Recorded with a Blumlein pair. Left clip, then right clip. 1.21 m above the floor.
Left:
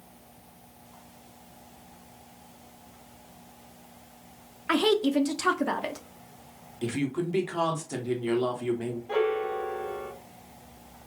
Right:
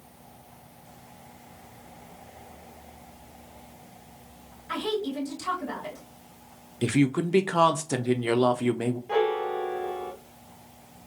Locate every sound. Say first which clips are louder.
4.7 s a woman speaking: left 6 dB; 50° left, 0.7 m
6.8 s a woman speaking: right 5 dB; 65° right, 0.7 m
9.1 s a piano: right 1 dB; 5° right, 0.7 m